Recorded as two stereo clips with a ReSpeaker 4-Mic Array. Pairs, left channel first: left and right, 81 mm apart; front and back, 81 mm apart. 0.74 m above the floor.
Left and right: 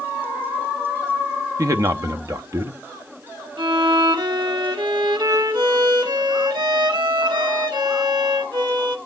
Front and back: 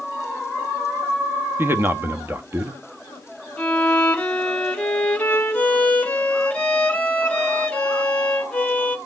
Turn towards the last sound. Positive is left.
turn(degrees=-75)